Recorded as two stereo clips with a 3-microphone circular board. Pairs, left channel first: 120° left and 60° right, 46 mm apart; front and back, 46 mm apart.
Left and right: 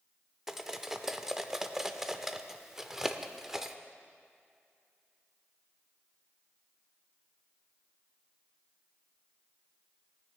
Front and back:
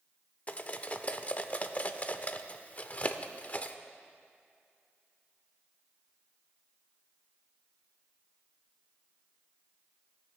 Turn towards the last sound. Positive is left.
turn(degrees=15)